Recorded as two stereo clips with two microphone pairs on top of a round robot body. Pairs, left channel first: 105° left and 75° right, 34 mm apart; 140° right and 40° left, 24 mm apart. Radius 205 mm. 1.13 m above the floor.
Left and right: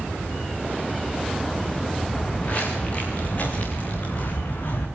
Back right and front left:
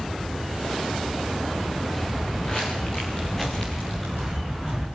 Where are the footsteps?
160° left, 5.5 m; by 4.9 s 130° left, 5.5 m.